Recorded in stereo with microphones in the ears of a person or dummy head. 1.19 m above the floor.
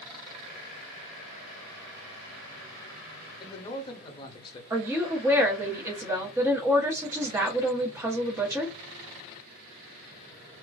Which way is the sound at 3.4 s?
25° left (ahead or behind).